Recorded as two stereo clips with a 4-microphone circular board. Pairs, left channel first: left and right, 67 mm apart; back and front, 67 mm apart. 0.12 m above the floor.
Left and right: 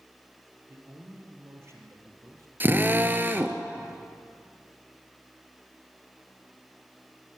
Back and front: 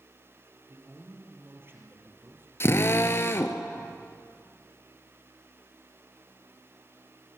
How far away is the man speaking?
About 3.5 m.